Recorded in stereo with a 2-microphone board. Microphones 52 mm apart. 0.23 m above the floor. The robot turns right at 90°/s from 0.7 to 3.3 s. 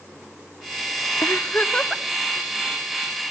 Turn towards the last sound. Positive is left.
turn(degrees=-65)